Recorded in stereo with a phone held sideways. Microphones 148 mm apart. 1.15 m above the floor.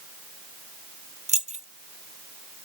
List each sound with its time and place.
1.3 s keys jangling: 50° right (ahead or behind), 0.6 m